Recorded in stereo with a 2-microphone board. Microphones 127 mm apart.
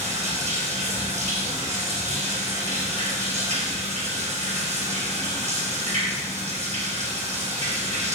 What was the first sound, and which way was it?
Running water, 65° right (ahead or behind).